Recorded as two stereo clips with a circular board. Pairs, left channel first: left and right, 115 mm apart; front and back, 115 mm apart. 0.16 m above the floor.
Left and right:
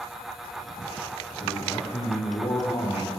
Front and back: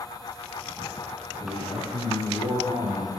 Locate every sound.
1.4 s a man speaking: 125° left, 7 m; by 3.1 s 135° left, 5.5 m